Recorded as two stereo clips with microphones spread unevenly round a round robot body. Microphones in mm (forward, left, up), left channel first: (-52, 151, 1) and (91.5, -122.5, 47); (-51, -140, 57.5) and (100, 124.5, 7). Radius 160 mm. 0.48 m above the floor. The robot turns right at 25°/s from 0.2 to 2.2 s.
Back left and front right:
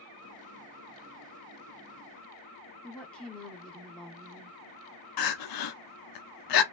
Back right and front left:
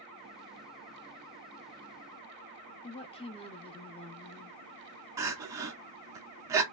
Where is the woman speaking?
175° left, 1.0 m.